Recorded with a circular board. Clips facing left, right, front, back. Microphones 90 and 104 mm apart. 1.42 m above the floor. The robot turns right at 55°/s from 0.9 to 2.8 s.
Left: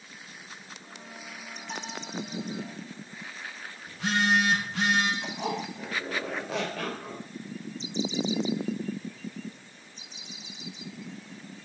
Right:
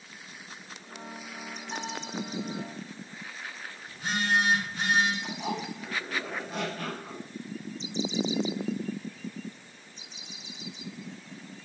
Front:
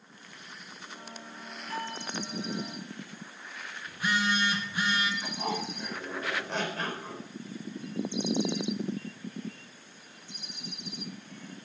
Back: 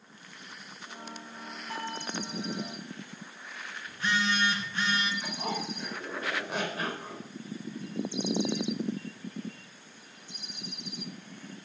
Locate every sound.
1.7 s a bell: 110° left, 5 m; by 2.1 s 130° left, 5 m
3.9 s a phone buzzing: 80° left, 3 m
5.2 s a zipper: 95° left, 4 m